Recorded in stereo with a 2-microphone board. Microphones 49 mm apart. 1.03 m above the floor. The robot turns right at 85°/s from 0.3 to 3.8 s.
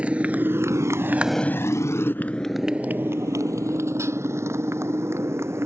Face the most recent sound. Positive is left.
turn(degrees=-60)  # may be behind; listen again after turning